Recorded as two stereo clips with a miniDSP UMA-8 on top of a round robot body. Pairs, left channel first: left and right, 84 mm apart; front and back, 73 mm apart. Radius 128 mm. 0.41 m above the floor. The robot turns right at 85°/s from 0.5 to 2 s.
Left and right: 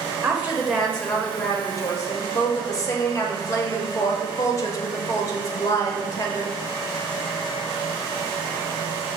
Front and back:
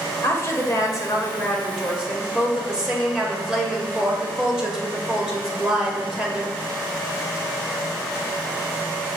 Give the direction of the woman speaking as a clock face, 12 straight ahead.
1 o'clock.